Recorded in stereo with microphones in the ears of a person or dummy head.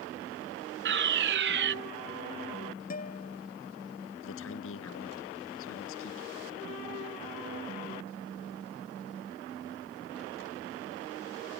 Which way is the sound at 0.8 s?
55° right (ahead or behind).